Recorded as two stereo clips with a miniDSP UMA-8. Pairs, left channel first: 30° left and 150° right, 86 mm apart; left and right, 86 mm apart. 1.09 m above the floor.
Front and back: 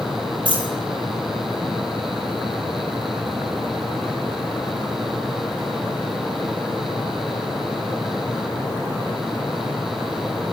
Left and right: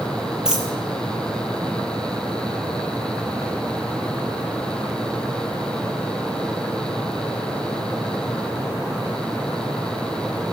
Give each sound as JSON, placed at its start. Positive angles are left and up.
{"t": 0.5, "sound": "a dropped coin", "azimuth_deg": -170, "distance_m": 6.0}